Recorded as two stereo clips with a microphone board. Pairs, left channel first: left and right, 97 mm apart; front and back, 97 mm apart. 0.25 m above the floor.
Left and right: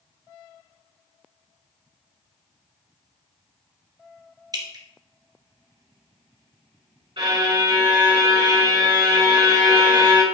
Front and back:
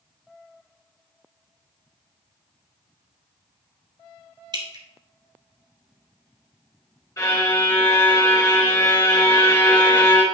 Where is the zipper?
No zipper in this recording.